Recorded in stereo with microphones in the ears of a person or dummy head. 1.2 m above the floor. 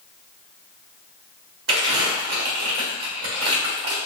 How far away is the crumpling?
About 1.7 m.